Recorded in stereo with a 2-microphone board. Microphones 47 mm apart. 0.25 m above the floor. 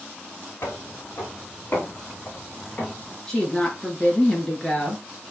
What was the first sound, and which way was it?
Footsteps, 65° left (ahead or behind).